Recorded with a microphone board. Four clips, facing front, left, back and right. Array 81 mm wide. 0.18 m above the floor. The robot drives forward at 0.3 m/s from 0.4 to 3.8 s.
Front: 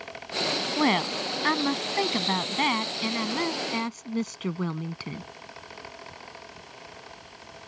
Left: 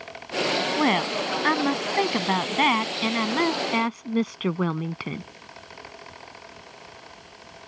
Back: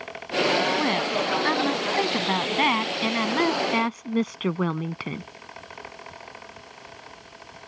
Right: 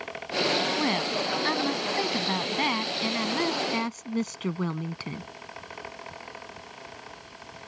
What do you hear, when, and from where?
0.8 s a woman speaking: 65° left; by 5.2 s 140° left